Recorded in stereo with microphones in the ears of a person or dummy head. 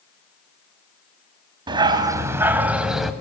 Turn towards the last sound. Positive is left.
turn(degrees=0)  # may be behind; listen again after turning